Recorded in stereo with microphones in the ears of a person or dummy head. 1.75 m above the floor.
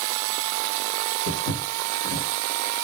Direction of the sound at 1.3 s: 50° left (ahead or behind).